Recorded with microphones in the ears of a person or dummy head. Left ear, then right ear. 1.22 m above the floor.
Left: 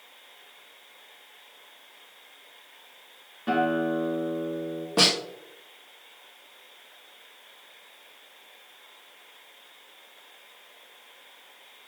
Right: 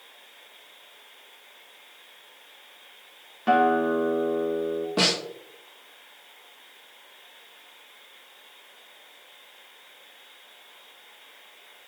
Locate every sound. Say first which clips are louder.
3.5 s a guitar: right 5 dB; 30° right (ahead or behind), 1.1 m
5.0 s a snare drum: left 2 dB; 15° left (ahead or behind), 1.4 m